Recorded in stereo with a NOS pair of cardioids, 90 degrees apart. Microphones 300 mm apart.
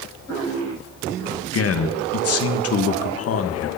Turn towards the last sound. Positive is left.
turn(degrees=50)